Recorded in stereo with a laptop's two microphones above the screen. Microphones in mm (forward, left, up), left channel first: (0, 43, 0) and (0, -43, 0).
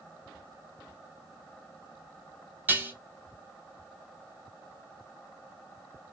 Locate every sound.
2.7 s dishes clattering: 20° right (ahead or behind), 0.9 m